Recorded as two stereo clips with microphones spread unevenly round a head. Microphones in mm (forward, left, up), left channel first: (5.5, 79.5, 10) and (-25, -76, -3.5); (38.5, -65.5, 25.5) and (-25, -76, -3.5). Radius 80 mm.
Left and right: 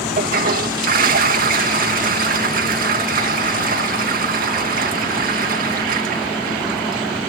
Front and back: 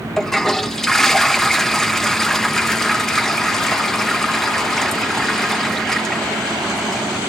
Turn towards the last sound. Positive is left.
turn(degrees=-65)